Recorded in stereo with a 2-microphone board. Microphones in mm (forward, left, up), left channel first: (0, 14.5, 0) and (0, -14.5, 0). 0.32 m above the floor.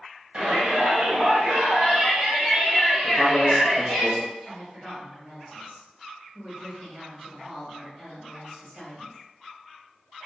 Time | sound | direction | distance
0.3 | a shout | 40° right (ahead or behind) | 1.5 m
3.0 | a man speaking | 10° left (ahead or behind) | 1.1 m
4.4 | a woman speaking | 30° right (ahead or behind) | 1.3 m